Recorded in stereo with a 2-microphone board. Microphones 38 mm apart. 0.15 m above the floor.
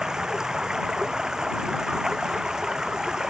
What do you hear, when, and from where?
0.0 s running water: 20° right (ahead or behind)